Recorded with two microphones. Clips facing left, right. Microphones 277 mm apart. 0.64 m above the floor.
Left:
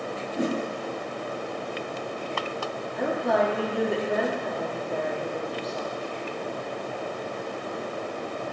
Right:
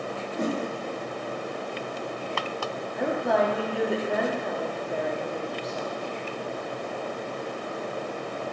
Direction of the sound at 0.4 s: 10° left (ahead or behind).